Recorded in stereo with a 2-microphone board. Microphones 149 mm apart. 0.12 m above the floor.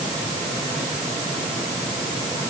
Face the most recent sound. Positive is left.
No sound to turn to.